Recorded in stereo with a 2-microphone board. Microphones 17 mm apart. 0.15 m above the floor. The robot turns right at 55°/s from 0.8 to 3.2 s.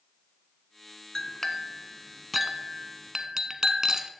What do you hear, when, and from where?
1.1 s a clink: 120° left, 0.8 m; by 4.1 s 130° right, 0.8 m